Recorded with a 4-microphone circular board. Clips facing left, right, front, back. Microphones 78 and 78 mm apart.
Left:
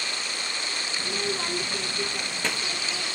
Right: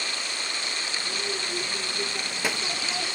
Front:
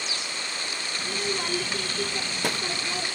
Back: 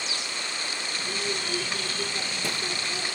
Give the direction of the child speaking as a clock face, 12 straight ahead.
10 o'clock.